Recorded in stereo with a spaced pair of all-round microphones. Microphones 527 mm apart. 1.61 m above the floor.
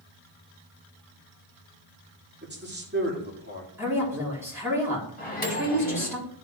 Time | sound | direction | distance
2.4 | a man speaking | 20° right (ahead or behind) | 3 m
3.8 | a woman speaking | 5° right (ahead or behind) | 3 m
5.2 | a microwave | 70° left (ahead or behind) | 1.6 m